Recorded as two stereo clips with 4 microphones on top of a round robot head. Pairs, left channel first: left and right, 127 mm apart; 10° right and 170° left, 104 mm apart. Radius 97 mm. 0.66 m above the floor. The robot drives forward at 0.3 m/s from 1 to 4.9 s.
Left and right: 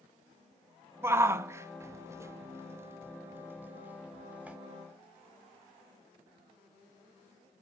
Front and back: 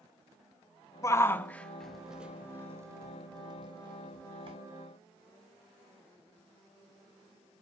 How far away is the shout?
About 0.6 m.